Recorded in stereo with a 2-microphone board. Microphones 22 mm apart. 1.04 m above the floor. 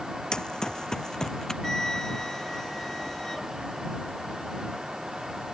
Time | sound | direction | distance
0.3 | running footsteps | 35° left (ahead or behind) | ?
1.6 | a flute | 20° left (ahead or behind) | ?